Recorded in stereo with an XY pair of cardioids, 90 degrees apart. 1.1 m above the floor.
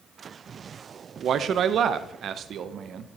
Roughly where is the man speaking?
Right.